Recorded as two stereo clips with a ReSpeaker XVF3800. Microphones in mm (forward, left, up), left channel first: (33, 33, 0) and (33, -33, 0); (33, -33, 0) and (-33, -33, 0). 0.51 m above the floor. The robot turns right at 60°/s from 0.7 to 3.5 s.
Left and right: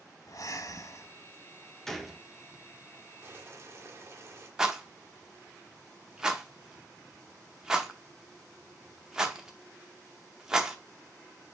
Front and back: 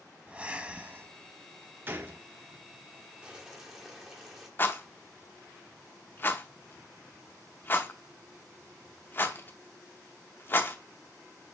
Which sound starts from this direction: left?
Breathing, at 0.3 s.